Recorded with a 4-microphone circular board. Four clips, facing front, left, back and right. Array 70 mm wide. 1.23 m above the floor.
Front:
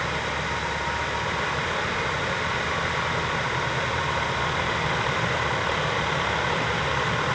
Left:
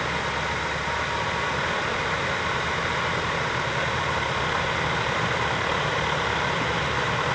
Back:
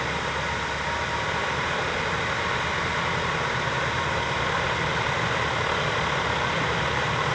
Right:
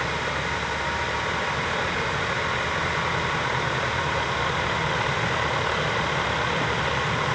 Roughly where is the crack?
No crack in this recording.